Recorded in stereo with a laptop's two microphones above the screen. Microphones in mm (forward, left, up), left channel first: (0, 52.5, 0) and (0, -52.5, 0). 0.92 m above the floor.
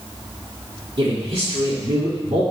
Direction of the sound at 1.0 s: 75° right (ahead or behind).